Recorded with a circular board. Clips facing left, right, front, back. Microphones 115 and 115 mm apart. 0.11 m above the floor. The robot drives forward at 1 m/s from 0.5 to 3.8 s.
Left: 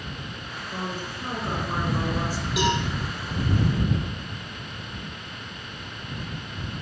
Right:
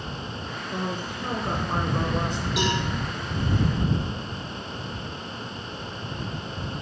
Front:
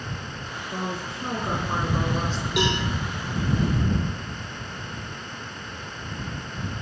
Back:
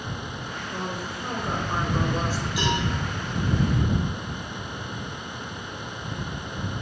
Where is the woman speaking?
25° right, 2 m; by 2.5 s 125° right, 1.8 m.